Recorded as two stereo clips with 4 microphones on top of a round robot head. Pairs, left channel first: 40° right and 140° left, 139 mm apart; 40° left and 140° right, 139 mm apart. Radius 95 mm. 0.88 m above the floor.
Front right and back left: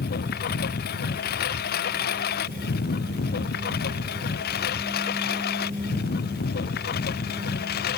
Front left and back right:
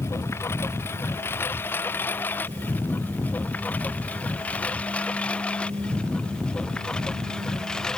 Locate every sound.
0.0 s a lawn mower: 30° right; by 8.0 s 45° right